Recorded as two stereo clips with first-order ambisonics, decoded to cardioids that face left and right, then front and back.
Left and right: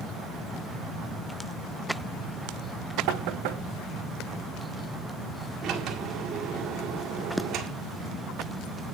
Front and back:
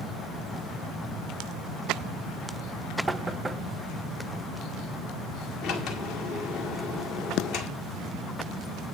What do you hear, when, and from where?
3.1 s knocking: 100° right, 0.7 m
5.6 s a sliding door: 35° right, 1.8 m